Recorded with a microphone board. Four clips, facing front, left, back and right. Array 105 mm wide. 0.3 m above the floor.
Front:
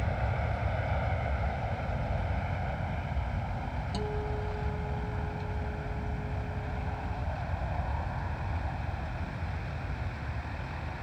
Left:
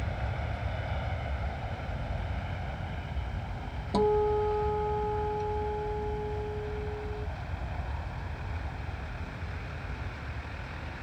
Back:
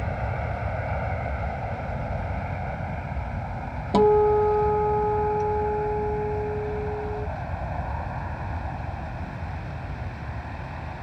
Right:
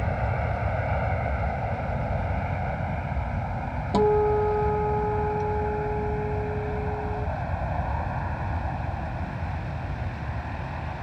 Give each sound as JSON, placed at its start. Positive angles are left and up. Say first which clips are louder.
{"t": 0.0, "sound": "an aircraft", "louder": "right 9 dB, back 4 dB", "azimuth_deg": -115}
{"t": 3.9, "sound": "a guitar", "louder": "right 5 dB, back 20 dB", "azimuth_deg": -165}